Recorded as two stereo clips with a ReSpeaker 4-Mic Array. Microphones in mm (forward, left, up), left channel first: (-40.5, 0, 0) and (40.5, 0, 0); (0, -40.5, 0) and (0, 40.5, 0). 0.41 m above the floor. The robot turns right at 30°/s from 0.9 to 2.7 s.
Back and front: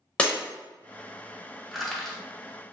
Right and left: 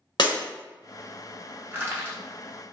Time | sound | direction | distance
0.2 | breaking glass | 105° right | 0.6 m
1.7 | crushing | 90° left | 0.6 m